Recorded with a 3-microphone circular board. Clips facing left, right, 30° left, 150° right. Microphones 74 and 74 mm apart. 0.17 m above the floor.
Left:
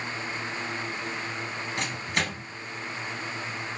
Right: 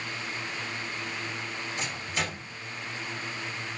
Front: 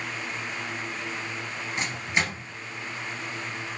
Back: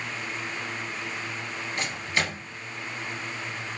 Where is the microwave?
100° left, 2 m.